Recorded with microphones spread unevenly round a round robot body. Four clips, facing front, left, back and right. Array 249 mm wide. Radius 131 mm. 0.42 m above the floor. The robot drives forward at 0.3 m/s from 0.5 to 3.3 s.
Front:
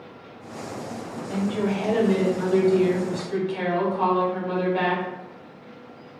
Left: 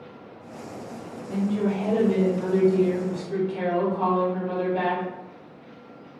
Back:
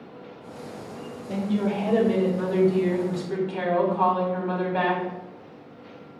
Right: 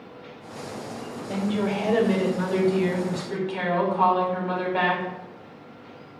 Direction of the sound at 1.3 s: 95° right.